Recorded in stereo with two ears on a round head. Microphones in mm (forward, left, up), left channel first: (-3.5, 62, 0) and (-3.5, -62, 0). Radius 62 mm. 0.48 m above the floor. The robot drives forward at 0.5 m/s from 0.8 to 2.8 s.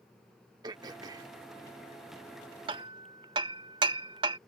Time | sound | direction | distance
0.6 | throat clearing | 30° right (ahead or behind) | ?
2.7 | hammering | 35° right (ahead or behind) | ?